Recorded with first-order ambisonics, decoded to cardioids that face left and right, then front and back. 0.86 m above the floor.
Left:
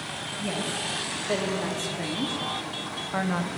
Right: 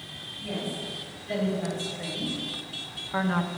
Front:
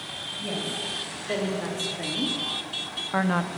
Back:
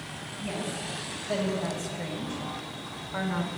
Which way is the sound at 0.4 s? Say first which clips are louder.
Left 3 dB, front 3 dB; 60° left.